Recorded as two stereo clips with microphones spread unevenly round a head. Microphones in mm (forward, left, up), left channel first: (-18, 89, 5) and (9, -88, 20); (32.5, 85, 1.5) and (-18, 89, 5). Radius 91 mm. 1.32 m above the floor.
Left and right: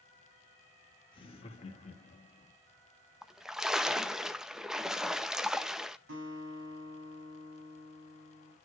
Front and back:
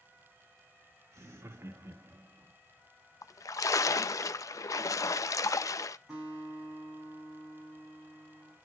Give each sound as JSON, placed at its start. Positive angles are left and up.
{"t": 1.1, "sound": "laughter", "azimuth_deg": 165, "distance_m": 2.0}
{"t": 3.2, "sound": "a splash", "azimuth_deg": 5, "distance_m": 0.6}
{"t": 6.1, "sound": "a guitar", "azimuth_deg": -95, "distance_m": 7.0}